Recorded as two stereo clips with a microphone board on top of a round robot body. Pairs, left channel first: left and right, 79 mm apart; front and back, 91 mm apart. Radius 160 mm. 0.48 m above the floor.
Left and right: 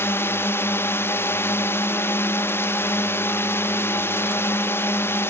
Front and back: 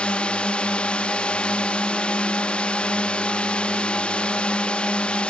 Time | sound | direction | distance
0.0 | a drone | 65° left | ?